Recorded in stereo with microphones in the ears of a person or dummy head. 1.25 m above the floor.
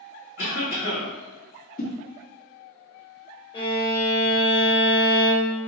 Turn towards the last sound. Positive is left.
turn(degrees=25)  # may be behind; listen again after turning